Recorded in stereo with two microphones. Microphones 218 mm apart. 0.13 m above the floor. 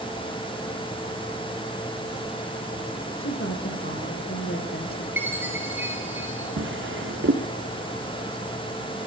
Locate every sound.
3.2 s a woman speaking: 65° left (ahead or behind), 6.5 m; by 5.1 s 45° left (ahead or behind), 5.5 m
5.2 s a chime: 10° right (ahead or behind), 7.5 m
6.6 s a drawer: 65° right (ahead or behind), 4.5 m